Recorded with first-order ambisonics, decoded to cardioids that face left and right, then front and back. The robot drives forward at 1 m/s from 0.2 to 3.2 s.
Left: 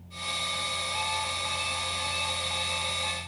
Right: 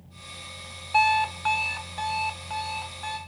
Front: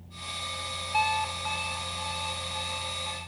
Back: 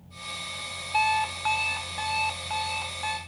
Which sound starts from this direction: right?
An alarm clock, at 0.9 s.